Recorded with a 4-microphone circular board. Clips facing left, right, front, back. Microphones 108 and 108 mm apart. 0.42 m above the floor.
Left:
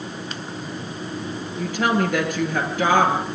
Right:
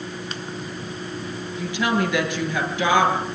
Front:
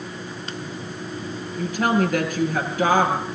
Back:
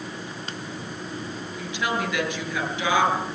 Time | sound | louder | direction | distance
1.6 | a woman speaking | left 2 dB, front 7 dB | 45° left | 7 m